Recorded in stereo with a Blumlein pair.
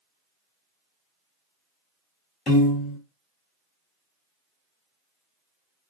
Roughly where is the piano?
Ahead.